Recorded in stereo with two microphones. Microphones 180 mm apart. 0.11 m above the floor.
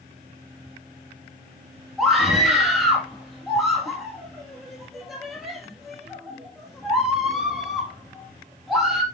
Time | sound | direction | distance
2.0 | a scream | centre (ahead or behind) | 3.5 m